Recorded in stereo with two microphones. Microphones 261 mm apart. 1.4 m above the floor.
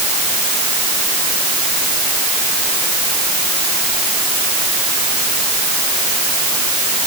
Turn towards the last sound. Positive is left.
No sound to turn to.